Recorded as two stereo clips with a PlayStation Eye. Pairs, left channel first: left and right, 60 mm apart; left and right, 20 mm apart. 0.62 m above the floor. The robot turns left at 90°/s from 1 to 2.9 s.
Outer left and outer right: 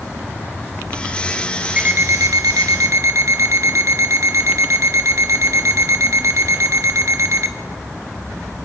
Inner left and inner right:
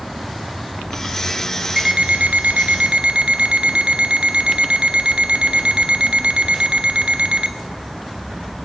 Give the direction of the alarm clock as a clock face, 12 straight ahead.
1 o'clock.